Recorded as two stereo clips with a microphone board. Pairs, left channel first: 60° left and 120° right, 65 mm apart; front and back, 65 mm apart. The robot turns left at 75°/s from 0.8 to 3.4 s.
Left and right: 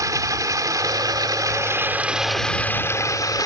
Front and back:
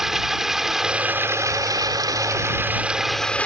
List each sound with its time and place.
0.0 s running water: 95° right; by 3.5 s 70° left